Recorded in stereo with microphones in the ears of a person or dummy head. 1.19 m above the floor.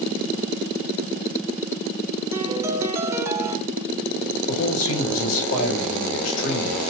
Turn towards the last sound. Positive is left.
turn(degrees=80)